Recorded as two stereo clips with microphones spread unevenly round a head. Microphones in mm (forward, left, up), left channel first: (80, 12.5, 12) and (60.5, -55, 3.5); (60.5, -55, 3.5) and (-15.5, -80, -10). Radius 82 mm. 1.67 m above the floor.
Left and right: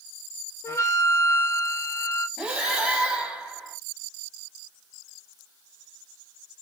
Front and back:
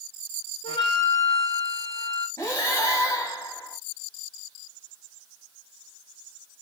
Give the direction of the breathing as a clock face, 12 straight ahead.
1 o'clock.